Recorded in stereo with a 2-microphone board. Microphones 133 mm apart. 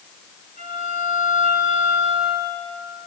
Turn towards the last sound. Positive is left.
turn(degrees=75)  # may be behind; listen again after turning